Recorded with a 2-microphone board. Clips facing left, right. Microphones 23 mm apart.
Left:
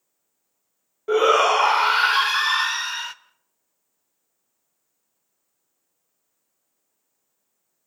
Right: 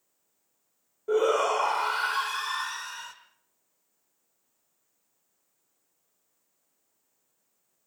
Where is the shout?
55° left (ahead or behind), 1.2 m.